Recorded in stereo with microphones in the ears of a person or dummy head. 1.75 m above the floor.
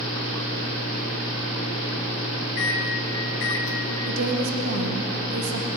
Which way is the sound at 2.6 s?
60° left (ahead or behind).